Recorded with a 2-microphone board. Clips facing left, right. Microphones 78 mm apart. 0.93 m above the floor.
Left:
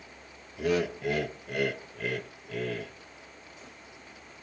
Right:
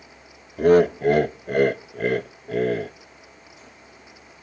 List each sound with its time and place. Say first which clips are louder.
0.6 s laughter: right 12 dB; 50° right (ahead or behind), 0.5 m